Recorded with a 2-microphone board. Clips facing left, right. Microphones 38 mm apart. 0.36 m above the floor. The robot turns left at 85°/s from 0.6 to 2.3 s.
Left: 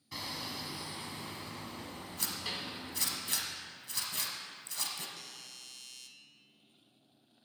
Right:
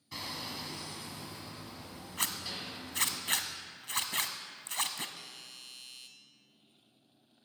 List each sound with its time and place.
0.1 s hammering: straight behind, 1.8 m; by 3.2 s 40° left, 1.8 m
2.2 s a zipper: 70° right (ahead or behind), 1.1 m; by 5.1 s 60° right (ahead or behind), 1.1 m
5.2 s a doorbell: 20° right (ahead or behind), 1.3 m